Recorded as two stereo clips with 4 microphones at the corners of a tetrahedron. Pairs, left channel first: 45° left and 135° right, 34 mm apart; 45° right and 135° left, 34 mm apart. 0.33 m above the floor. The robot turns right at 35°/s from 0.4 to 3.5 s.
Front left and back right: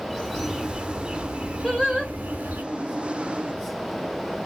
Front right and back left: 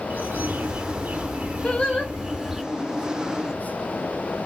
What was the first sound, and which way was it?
A bird, 135° left.